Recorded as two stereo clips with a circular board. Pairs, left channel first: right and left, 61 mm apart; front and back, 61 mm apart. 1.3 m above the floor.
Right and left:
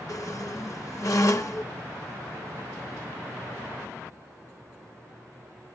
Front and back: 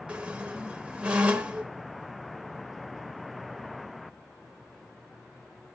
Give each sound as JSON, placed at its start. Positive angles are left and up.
{"t": 0.1, "sound": "a squeak", "azimuth_deg": -110, "distance_m": 1.1}